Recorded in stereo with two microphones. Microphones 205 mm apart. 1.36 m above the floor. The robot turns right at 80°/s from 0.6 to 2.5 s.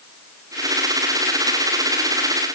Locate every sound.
Only background noise.